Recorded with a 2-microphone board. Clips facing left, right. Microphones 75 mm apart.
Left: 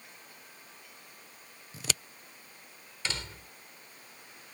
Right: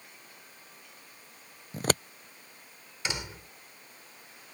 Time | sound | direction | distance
1.7 | scissors | 45° right (ahead or behind) | ?
3.0 | a door slam | 15° right (ahead or behind) | ?